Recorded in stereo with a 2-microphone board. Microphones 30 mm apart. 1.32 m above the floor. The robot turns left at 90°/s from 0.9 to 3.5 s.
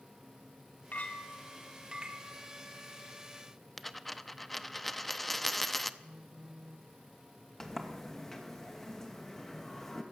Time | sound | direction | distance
0.9 | a clink | 65° left | 1.9 m
3.8 | a dropped coin | 5° left (ahead or behind) | 0.7 m
6.0 | a phone buzzing | 20° right (ahead or behind) | 1.0 m
7.6 | a sliding door | 10° left (ahead or behind) | 2.5 m